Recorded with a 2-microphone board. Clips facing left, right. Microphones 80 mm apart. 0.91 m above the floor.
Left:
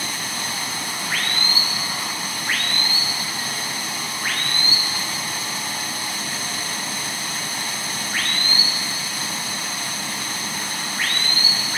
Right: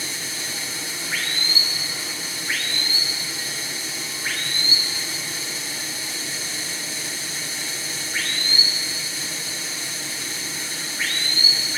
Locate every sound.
0.0 s running water: 60° left (ahead or behind), 1.9 m